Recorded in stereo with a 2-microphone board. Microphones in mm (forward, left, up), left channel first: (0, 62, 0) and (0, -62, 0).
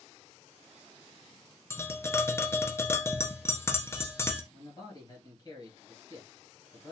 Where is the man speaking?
35° left (ahead or behind), 2 m.